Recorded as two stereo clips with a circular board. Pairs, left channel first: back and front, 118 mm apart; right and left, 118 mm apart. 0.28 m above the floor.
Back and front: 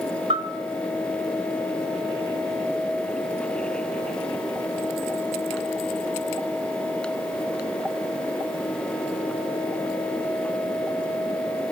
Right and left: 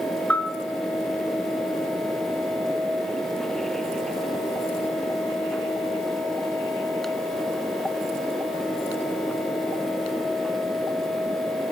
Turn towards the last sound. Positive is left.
turn(degrees=-15)